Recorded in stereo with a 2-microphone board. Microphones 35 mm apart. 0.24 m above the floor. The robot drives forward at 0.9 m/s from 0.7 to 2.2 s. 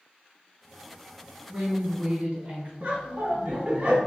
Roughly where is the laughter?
Right.